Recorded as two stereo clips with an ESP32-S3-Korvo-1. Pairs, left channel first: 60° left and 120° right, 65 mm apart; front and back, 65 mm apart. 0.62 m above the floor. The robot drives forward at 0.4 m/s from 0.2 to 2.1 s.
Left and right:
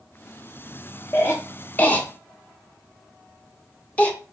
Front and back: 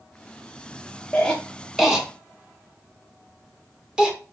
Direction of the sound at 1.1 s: 65° left.